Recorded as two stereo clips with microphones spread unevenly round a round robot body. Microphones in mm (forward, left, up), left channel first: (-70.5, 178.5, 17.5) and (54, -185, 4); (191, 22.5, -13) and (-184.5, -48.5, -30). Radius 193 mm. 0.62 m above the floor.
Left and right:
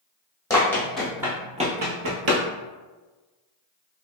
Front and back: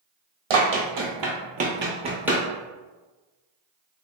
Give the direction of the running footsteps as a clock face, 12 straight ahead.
6 o'clock.